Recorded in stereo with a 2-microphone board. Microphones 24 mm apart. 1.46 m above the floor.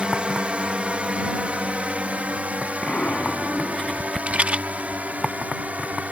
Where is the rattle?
65° right (ahead or behind).